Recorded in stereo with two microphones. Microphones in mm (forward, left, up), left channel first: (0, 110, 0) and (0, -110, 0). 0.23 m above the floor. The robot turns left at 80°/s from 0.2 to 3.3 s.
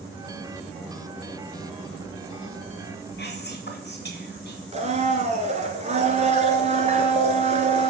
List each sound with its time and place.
3.2 s whispering: 50° left (ahead or behind), 2.0 m
4.7 s a blender: 30° right (ahead or behind), 1.3 m